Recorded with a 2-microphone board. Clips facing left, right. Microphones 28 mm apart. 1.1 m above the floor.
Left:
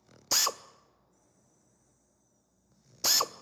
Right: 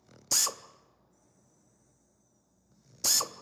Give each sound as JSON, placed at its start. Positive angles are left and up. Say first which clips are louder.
{"t": 0.3, "sound": "a drill", "louder": "left 2 dB", "side_deg": 20, "distance_m": 0.5}